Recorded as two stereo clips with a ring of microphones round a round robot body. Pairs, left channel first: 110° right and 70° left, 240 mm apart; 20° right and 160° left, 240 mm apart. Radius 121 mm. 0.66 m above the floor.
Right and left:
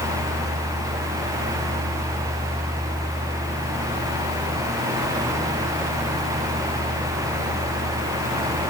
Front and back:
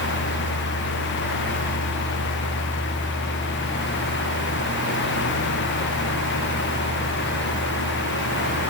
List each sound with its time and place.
Only background noise.